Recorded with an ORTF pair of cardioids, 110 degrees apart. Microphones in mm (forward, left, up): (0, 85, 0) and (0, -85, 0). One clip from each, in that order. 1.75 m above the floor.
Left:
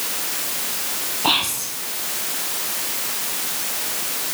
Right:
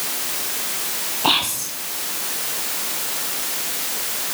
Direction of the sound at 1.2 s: 10° right.